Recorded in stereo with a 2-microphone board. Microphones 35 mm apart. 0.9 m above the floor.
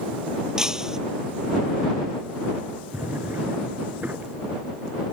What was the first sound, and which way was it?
Breaking glass, 15° right (ahead or behind).